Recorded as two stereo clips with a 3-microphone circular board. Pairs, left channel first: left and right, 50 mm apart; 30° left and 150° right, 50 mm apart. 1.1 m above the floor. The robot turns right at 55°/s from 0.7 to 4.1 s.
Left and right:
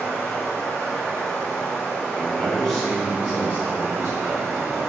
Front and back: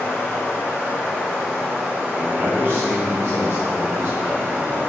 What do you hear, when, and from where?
0.0 s running water: 65° left, 1.2 m; by 4.9 s 105° right, 1.2 m
2.1 s a man speaking: 145° left, 1.4 m; by 4.8 s 110° right, 1.4 m